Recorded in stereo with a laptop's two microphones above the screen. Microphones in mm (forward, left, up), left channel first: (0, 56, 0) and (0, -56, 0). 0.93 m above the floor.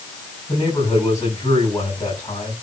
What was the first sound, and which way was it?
A man speaking, 30° left (ahead or behind).